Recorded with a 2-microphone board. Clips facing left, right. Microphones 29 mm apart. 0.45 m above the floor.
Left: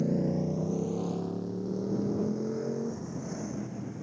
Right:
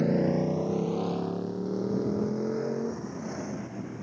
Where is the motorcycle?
60° right (ahead or behind); by 4.0 s 25° right (ahead or behind).